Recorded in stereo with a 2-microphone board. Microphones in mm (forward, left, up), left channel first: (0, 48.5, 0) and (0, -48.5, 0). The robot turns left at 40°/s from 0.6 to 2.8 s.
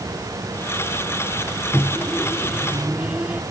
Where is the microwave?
25° left (ahead or behind); by 3.4 s 10° right (ahead or behind).